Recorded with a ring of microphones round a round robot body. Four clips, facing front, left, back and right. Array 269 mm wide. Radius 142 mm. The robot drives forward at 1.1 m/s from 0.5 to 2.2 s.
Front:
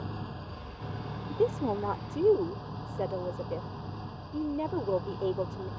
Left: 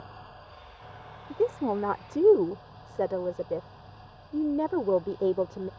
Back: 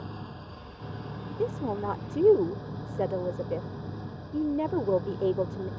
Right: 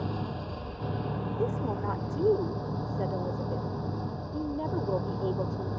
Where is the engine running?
90° right; by 5.8 s 110° right.